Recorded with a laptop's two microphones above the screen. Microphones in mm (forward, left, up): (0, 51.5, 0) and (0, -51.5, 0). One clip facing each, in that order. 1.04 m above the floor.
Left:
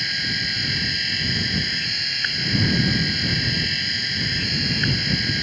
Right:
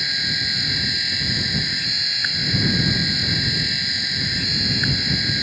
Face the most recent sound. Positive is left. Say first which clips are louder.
# even
turn(degrees=-5)  # may be behind; listen again after turning